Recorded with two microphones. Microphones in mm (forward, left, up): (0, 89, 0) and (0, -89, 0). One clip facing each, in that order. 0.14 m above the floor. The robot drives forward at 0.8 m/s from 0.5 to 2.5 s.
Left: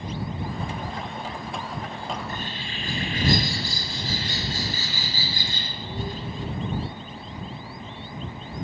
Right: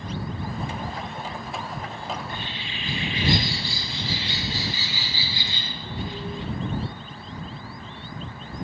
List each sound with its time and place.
2.1 s a bird: 45° left (ahead or behind), 3 m